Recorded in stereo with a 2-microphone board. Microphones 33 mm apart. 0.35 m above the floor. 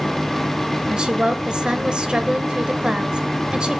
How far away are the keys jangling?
No keys jangling in this recording.